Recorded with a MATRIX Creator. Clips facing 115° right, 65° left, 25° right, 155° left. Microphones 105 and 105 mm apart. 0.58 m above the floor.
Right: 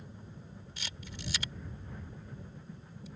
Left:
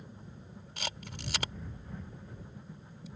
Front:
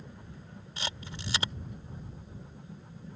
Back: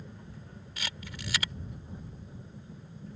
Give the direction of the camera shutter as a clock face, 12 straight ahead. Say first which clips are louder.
Left 7 dB, front 3 dB; 11 o'clock.